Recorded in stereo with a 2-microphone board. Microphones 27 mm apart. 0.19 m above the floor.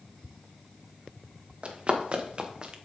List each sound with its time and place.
1.6 s running footsteps: 45° right (ahead or behind), 2.0 m; by 2.8 s 30° right (ahead or behind), 1.4 m